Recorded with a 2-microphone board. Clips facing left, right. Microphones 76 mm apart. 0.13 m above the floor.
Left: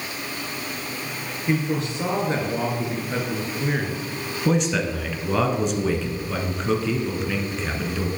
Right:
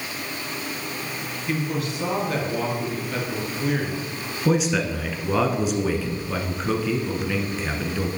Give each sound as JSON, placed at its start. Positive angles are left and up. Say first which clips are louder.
{"t": 1.5, "sound": "a man speaking", "louder": "left 3 dB", "side_deg": 30, "distance_m": 2.0}
{"t": 4.5, "sound": "a man speaking", "louder": "right 1 dB", "side_deg": -5, "distance_m": 1.2}